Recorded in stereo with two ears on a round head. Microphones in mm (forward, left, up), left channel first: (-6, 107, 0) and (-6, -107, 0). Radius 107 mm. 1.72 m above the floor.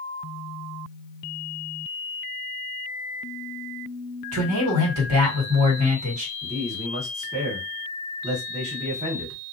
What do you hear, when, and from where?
4.3 s a man speaking: 70° right (ahead or behind), 1.4 m
6.4 s a man speaking: 25° right (ahead or behind), 1.2 m